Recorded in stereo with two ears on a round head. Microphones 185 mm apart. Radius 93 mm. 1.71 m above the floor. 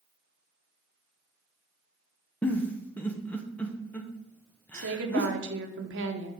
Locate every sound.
2.4 s a giggle: 10° left (ahead or behind), 0.8 m
4.7 s a woman speaking: 60° right (ahead or behind), 1.1 m